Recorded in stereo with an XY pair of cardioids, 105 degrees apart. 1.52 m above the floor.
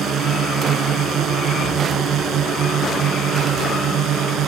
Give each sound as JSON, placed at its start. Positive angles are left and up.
{"t": 0.0, "sound": "a drone", "azimuth_deg": -65}